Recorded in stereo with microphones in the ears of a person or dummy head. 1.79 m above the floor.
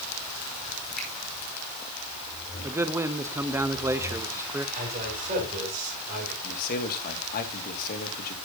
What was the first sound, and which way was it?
A finger snap, 10° left (ahead or behind).